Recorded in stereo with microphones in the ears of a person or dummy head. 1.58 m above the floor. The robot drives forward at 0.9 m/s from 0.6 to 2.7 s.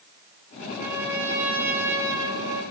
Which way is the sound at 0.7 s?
10° right (ahead or behind).